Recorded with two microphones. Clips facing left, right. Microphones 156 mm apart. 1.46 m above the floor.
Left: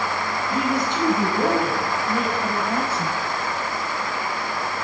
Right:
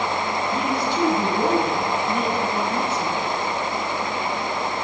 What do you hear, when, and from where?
0.5 s a woman speaking: 20° left (ahead or behind), 9 m; by 3.1 s 30° left (ahead or behind), 8 m